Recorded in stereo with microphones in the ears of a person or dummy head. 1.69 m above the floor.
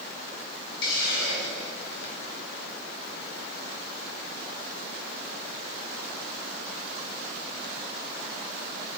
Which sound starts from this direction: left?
A hiss, at 0.8 s.